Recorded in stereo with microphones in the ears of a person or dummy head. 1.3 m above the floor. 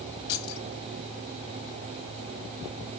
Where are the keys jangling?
65° left (ahead or behind), 1.1 m.